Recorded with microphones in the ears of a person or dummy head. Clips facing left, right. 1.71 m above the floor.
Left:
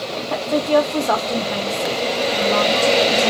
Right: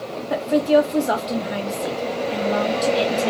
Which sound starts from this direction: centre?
A woman speaking, at 0.3 s.